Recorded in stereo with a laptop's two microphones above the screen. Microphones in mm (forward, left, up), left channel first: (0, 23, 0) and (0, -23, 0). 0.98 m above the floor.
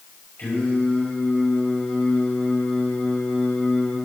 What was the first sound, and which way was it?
Singing, 45° left (ahead or behind).